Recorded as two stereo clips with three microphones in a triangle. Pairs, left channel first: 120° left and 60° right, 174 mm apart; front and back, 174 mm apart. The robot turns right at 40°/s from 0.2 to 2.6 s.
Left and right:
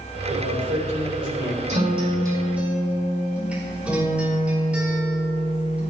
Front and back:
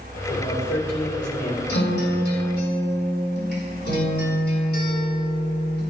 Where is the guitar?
15° right, 5 m; by 5.9 s 25° left, 5 m.